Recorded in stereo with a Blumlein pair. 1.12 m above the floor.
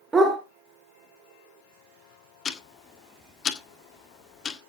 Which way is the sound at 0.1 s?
10° right.